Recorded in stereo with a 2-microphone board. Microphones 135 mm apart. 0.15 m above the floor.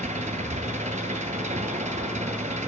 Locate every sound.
0.0 s an engine running: 65° right (ahead or behind), 1.2 m